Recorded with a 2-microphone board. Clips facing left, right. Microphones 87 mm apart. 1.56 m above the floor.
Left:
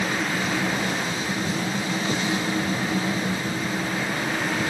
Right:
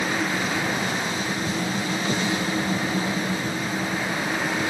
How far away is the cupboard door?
No cupboard door in this recording.